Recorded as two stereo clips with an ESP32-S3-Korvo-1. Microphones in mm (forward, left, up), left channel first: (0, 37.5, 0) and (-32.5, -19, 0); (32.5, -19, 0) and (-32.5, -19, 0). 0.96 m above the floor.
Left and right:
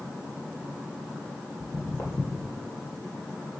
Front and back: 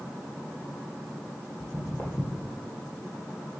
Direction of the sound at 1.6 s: 30° left.